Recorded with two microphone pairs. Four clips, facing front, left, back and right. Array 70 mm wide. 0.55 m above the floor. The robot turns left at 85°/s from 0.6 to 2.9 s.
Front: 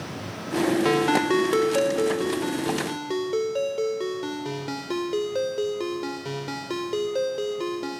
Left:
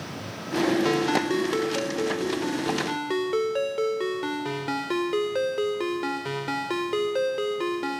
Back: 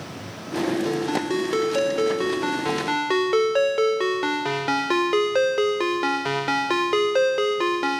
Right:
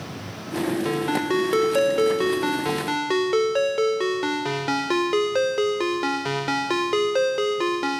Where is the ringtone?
10° left, 0.5 m; by 8.0 s 165° right, 0.5 m.